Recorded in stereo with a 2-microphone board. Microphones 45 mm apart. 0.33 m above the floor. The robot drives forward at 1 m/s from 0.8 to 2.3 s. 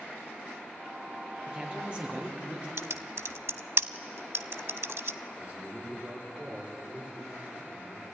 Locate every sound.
1.5 s a man speaking: 20° right (ahead or behind), 5.5 m; by 2.7 s 25° right (ahead or behind), 4.5 m
2.8 s typing on a keyboard: 70° right (ahead or behind), 0.6 m
5.4 s a man speaking: 30° right (ahead or behind), 9.5 m